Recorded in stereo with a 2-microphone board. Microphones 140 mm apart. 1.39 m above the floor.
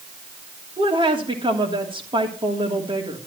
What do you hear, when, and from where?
0.8 s a woman speaking: 40° right (ahead or behind), 3 m